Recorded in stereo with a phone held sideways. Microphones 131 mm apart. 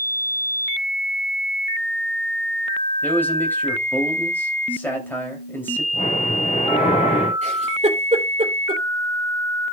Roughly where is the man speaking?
Centre.